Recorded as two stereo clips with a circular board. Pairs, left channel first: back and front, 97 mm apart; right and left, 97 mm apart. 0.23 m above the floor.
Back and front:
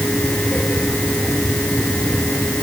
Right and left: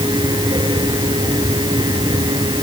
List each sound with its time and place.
Only background noise.